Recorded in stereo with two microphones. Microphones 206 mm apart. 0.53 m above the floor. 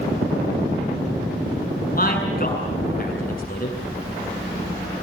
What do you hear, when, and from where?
1.9 s a man speaking: 45° left (ahead or behind), 7.5 m